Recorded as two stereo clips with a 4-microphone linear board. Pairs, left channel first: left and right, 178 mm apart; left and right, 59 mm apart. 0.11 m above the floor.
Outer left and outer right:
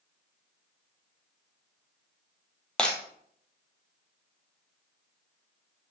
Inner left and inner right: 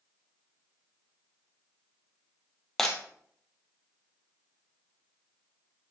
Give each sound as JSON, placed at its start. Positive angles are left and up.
{"t": 2.8, "sound": "breaking glass", "side_deg": 5, "distance_m": 1.7}